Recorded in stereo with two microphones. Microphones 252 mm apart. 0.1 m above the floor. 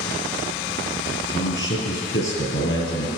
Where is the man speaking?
50° left (ahead or behind), 2 m.